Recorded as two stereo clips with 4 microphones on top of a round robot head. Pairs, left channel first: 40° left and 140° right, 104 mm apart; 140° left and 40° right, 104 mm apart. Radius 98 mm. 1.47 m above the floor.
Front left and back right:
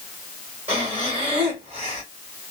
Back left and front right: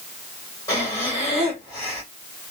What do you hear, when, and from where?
0.7 s breathing: 165° right, 1.4 m